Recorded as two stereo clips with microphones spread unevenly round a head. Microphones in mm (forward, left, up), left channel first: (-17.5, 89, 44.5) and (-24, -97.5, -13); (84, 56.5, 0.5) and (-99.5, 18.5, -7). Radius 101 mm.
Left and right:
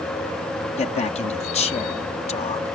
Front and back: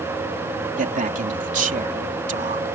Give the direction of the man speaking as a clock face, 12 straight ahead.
7 o'clock.